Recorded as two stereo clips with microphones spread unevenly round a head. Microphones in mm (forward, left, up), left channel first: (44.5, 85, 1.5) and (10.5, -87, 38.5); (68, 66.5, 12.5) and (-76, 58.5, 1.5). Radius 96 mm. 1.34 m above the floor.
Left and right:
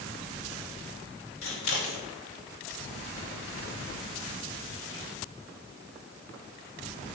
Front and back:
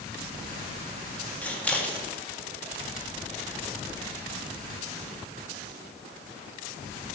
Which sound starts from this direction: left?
Scissors, at 1.4 s.